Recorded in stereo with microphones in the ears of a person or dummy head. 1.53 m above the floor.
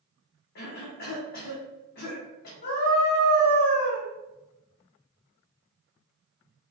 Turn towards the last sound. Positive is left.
turn(degrees=40)  # may be behind; listen again after turning